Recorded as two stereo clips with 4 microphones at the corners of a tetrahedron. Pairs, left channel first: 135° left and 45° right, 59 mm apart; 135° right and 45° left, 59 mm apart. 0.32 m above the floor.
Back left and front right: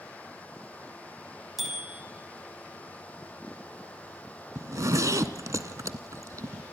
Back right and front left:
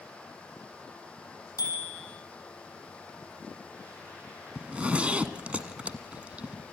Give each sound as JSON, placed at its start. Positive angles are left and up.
{"t": 1.6, "sound": "a bicycle bell", "azimuth_deg": -135, "distance_m": 8.5}
{"t": 4.5, "sound": "a zipper", "azimuth_deg": -20, "distance_m": 1.5}